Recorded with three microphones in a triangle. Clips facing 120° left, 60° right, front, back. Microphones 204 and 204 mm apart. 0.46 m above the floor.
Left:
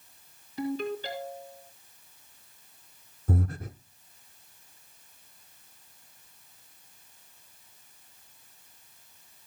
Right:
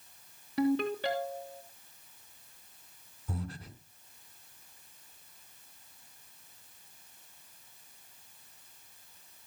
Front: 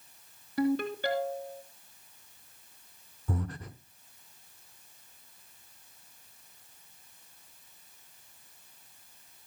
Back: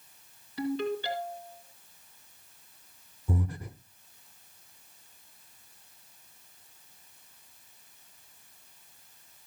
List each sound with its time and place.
0.6 s a ringtone: 40° right, 3 m
3.3 s breathing: 100° left, 1.0 m